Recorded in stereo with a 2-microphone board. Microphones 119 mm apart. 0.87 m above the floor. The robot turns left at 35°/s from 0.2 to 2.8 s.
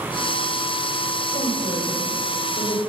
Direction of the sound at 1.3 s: 55° left (ahead or behind).